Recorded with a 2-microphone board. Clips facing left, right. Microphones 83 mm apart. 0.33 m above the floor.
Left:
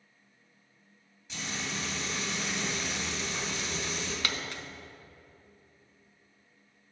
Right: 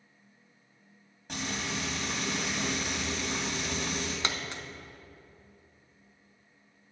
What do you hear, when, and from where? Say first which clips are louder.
1.3 s frying: right 3 dB; 55° right (ahead or behind), 2.5 m
4.2 s a dropped coin: right 1 dB; 25° right (ahead or behind), 0.6 m